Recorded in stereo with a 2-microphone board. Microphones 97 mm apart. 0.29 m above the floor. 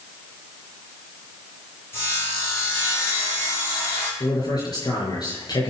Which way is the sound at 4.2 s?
45° left (ahead or behind).